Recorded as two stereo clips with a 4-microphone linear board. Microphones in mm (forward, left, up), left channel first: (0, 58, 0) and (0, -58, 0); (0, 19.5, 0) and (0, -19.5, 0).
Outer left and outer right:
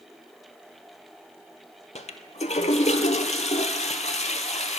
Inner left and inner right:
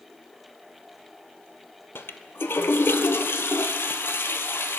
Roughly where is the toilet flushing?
Left.